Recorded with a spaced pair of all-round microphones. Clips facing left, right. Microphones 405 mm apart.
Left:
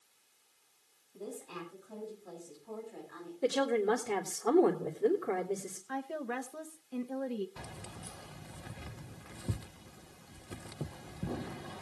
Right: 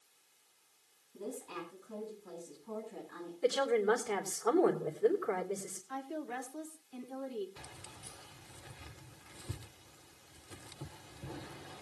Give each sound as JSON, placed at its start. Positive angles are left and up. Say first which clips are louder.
{"t": 1.1, "sound": "a woman speaking", "louder": "right 1 dB", "side_deg": -10, "distance_m": 8.5}
{"t": 3.4, "sound": "a woman speaking", "louder": "even", "side_deg": 50, "distance_m": 2.5}
{"t": 5.9, "sound": "a woman speaking", "louder": "left 3 dB", "side_deg": 75, "distance_m": 1.3}
{"t": 7.6, "sound": "keys jangling", "louder": "left 6 dB", "side_deg": 70, "distance_m": 0.6}